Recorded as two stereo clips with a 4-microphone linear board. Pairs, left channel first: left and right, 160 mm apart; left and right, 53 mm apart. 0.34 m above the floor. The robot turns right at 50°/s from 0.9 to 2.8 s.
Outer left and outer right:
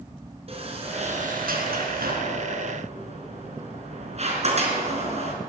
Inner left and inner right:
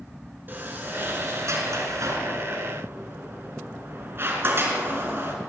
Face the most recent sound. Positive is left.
turn(degrees=-45)  # may be behind; listen again after turning